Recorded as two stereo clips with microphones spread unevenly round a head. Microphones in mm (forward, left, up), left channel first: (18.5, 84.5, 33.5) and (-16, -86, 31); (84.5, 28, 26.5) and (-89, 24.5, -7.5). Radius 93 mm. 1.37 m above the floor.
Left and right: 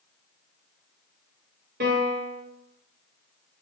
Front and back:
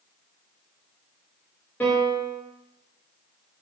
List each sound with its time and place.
1.8 s a piano: 85° right, 0.7 m